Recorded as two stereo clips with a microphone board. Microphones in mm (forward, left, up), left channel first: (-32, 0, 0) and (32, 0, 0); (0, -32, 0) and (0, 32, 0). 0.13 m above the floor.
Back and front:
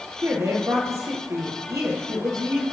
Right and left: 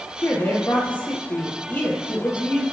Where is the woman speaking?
30° right, 3 m.